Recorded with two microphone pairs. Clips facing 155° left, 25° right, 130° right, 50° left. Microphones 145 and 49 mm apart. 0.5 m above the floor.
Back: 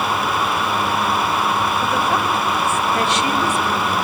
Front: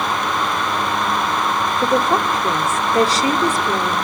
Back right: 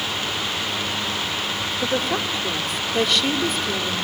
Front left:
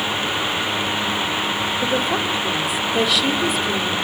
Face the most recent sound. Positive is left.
turn(degrees=-40)